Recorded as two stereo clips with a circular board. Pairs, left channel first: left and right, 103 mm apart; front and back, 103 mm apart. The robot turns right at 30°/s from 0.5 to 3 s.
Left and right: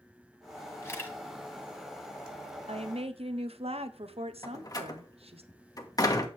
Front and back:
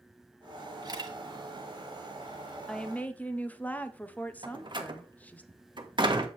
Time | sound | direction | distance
0.8 | a camera shutter | 145° left | 2 m
2.7 | a woman speaking | 85° right | 1.0 m
4.4 | a door slam | 140° left | 1.4 m